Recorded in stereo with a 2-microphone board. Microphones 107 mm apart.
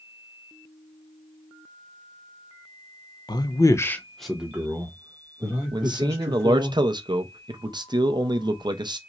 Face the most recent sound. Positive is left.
turn(degrees=-45)  # may be behind; listen again after turning